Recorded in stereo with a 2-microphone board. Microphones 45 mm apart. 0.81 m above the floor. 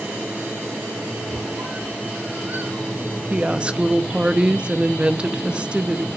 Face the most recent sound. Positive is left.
turn(degrees=-20)  # may be behind; listen again after turning